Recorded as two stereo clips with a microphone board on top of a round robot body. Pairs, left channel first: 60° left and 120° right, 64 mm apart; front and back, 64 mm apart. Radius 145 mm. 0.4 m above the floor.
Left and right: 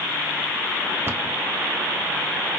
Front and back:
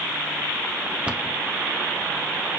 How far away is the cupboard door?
About 1.5 m.